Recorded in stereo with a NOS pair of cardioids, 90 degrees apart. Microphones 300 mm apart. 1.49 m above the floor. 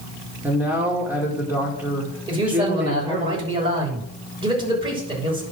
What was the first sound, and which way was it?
A man speaking, 5° right.